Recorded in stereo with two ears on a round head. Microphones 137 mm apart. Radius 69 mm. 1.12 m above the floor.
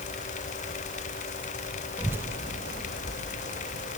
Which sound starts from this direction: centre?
A child speaking, at 2.0 s.